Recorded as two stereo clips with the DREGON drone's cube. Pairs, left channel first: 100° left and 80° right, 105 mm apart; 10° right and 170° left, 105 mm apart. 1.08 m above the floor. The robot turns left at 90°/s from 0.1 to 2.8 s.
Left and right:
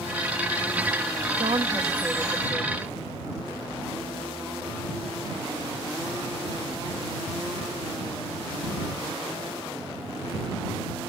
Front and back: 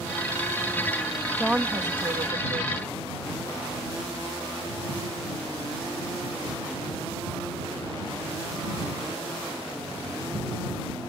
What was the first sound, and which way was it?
A woman speaking, 95° right.